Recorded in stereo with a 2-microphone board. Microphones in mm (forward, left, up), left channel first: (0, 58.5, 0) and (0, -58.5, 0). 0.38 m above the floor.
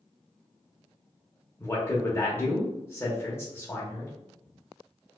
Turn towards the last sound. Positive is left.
turn(degrees=20)  # may be behind; listen again after turning